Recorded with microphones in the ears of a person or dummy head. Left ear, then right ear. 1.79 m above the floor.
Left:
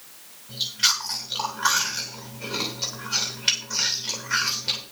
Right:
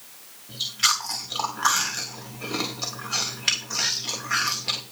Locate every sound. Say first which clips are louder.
0.5 s chewing: even; 20° right (ahead or behind), 3 m